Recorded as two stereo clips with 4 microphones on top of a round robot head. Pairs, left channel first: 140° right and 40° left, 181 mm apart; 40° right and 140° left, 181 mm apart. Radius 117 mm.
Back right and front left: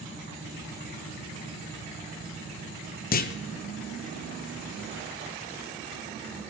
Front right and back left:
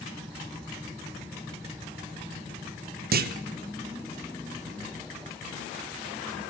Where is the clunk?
Straight behind, 1.1 m.